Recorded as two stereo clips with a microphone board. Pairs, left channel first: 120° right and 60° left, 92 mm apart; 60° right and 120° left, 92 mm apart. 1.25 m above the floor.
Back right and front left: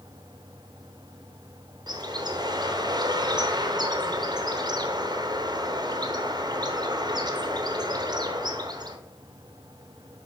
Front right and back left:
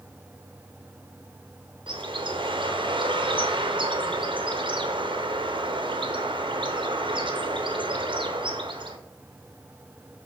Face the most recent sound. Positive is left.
turn(degrees=100)